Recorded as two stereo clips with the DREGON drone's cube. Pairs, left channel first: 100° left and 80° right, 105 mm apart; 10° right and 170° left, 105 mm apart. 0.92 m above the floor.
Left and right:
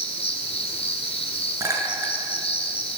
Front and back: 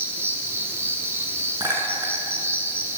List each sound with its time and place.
0.0 s an insect: 105° left, 3.5 m
1.6 s a clink: 140° right, 7 m